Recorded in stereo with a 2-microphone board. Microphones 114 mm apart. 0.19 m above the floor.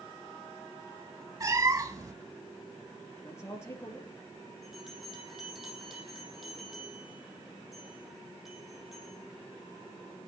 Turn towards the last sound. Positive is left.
turn(degrees=0)  # may be behind; listen again after turning